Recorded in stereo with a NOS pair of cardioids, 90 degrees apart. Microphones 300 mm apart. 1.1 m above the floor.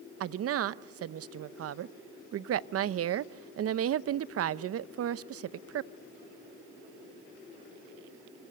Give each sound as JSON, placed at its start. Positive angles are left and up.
{"t": 0.2, "sound": "a woman speaking", "azimuth_deg": -50, "distance_m": 0.8}